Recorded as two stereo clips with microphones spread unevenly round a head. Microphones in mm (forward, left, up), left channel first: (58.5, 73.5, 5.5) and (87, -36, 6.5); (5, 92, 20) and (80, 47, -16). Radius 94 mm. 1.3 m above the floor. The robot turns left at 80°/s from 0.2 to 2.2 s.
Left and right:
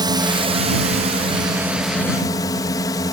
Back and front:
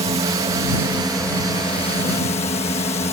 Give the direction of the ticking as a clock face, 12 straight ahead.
I don't hear ticking.